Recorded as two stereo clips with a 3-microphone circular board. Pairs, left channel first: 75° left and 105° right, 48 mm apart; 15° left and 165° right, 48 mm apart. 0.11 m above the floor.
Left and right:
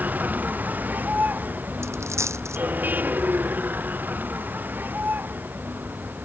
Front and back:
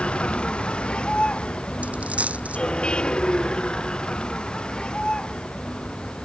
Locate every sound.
0.0 s a vehicle: 50° right; by 6.2 s 55° right
1.8 s a dropped coin: 105° right